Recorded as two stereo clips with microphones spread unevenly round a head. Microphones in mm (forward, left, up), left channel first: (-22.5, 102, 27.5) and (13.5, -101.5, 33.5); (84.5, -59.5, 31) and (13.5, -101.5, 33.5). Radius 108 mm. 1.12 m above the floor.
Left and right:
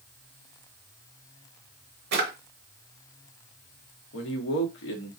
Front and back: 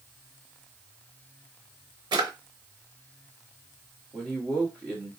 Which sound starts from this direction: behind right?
A drawer, at 2.1 s.